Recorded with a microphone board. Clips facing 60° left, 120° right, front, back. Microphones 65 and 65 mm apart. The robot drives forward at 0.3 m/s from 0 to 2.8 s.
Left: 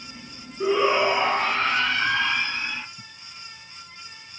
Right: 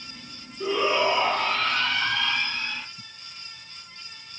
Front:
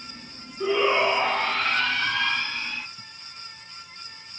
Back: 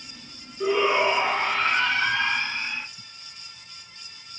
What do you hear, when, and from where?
0.6 s a shout: 100° left, 1.7 m; by 2.9 s 120° left, 1.9 m